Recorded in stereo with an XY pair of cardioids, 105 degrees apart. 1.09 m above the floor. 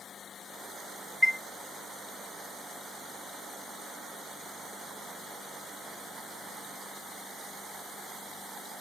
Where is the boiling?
No boiling in this recording.